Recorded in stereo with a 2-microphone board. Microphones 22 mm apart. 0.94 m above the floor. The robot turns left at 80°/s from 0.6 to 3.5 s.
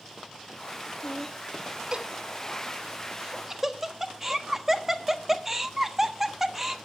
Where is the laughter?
30° left (ahead or behind), 1.3 m; by 6.8 s 15° right (ahead or behind), 1.3 m.